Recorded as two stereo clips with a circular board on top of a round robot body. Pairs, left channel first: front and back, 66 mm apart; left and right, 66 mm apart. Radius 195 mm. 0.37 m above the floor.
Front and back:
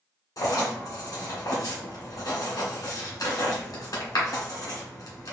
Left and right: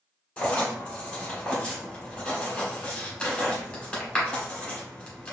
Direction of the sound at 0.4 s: 15° left.